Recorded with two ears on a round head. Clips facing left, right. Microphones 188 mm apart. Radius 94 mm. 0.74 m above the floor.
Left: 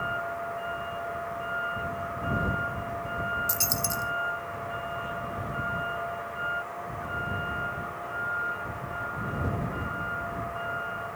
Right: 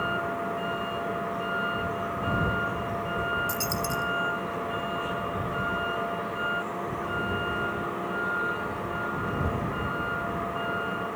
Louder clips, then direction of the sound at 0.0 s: Right 4 dB; 55° right (ahead or behind).